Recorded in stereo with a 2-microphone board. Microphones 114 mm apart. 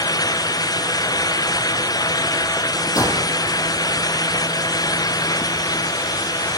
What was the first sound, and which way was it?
A gunshot, 30° left (ahead or behind).